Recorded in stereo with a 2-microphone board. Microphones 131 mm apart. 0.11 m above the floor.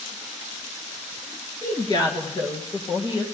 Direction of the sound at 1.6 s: 30° left (ahead or behind).